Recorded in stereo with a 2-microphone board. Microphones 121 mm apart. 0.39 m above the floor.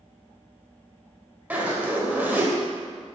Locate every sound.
1.5 s a zipper: 15° right (ahead or behind), 1.2 m